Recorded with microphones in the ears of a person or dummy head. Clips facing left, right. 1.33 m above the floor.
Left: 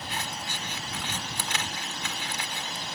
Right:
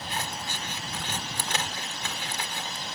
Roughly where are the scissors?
Right.